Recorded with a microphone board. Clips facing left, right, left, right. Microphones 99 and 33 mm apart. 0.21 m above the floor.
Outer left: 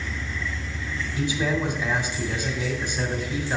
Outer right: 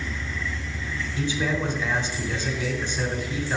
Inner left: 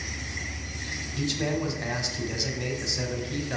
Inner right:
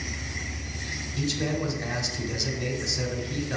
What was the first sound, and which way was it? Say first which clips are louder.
A man speaking: outer left 1 dB, even; 10° left (ahead or behind).